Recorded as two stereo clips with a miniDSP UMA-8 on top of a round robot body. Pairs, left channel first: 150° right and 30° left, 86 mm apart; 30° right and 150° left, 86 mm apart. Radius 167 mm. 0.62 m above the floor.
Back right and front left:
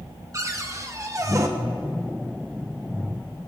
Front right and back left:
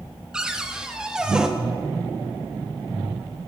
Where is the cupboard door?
75° left, 1.6 m.